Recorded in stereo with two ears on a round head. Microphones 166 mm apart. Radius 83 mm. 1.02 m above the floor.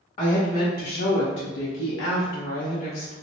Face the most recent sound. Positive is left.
turn(degrees=35)  # may be behind; listen again after turning